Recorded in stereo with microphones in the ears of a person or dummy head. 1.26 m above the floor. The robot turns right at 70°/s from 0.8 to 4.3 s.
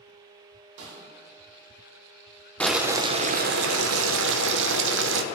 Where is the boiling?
175° left, 0.6 m; by 5.2 s 65° right, 0.6 m.